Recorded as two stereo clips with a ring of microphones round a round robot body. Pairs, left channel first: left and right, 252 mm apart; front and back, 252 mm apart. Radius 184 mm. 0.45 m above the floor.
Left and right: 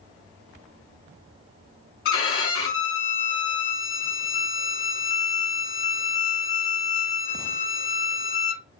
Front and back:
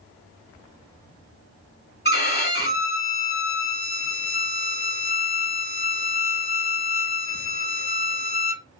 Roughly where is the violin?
Ahead left.